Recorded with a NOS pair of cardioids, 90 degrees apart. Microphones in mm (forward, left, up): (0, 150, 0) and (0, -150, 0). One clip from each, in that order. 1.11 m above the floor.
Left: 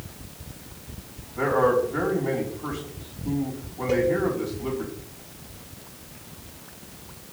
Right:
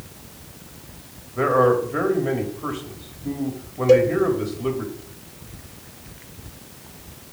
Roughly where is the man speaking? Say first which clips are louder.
Right 3 dB; ahead right.